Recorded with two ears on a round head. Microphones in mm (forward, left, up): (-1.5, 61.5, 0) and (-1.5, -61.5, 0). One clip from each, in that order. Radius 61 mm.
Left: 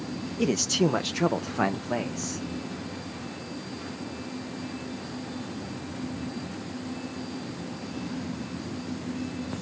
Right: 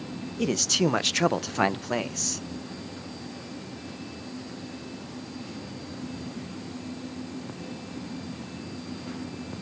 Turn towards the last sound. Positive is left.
turn(degrees=-70)  # may be behind; listen again after turning